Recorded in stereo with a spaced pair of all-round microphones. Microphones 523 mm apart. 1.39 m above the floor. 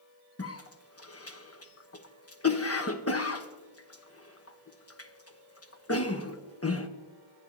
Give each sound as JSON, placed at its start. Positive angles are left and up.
{"t": 0.4, "sound": "a cough", "side_deg": 30, "distance_m": 1.0}